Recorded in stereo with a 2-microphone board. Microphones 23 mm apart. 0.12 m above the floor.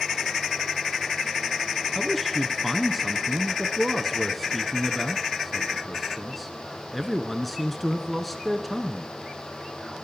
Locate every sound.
1.9 s a man speaking: centre (ahead or behind), 1.2 m